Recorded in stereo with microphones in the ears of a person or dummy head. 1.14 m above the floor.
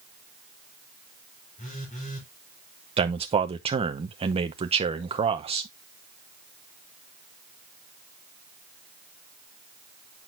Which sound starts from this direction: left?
A phone buzzing, at 1.6 s.